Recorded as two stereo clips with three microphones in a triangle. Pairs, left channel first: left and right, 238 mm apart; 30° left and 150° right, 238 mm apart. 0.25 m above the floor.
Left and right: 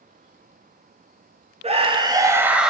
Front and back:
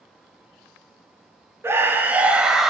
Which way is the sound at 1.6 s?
80° right.